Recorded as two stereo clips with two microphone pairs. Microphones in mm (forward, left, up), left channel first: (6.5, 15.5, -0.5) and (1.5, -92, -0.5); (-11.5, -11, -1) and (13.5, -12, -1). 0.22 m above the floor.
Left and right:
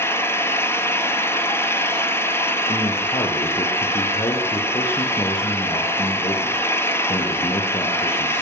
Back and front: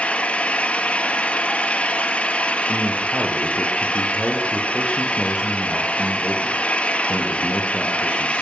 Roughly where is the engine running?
Behind left.